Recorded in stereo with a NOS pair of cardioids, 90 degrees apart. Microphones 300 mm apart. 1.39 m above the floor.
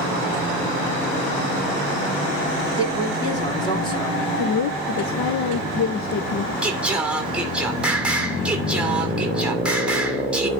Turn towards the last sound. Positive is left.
turn(degrees=-5)